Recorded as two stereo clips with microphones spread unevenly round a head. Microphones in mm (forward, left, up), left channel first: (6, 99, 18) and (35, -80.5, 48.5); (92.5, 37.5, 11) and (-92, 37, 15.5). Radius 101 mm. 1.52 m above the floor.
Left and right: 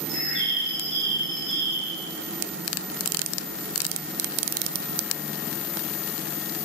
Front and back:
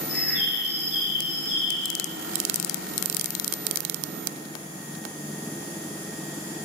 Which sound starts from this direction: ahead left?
A bird, at 0.1 s.